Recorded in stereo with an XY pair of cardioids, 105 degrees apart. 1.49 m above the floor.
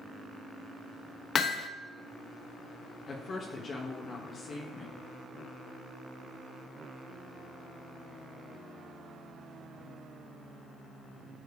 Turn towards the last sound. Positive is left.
turn(degrees=45)